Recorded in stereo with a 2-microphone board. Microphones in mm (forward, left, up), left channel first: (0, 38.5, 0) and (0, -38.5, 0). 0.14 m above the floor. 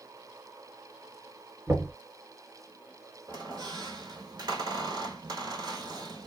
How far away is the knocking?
About 1.5 m.